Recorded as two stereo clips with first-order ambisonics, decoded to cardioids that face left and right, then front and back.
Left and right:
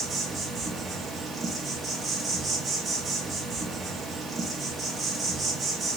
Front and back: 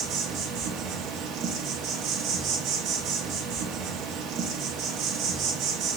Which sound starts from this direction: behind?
An insect, at 0.0 s.